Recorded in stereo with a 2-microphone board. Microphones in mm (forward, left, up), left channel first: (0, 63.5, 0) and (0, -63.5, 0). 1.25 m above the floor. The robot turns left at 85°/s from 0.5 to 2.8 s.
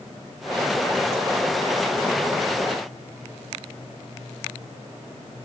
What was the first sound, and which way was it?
Only background noise.